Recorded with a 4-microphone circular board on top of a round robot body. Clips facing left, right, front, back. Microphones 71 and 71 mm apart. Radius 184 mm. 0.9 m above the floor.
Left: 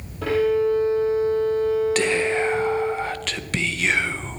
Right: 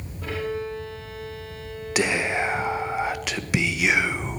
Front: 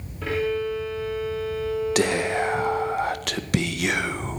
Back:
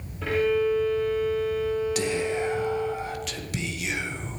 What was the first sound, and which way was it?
A violin, 90° left.